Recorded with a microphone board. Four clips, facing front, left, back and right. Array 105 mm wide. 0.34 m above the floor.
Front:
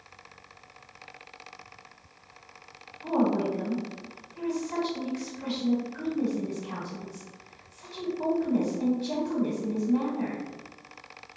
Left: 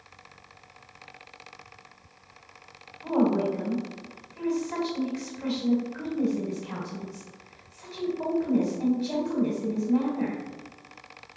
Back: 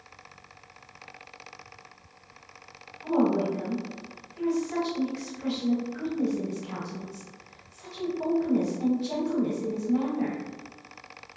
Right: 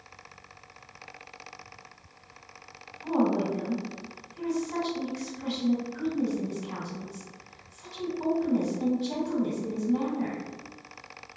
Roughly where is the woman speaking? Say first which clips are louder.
Left 2 dB, back 1 dB; left.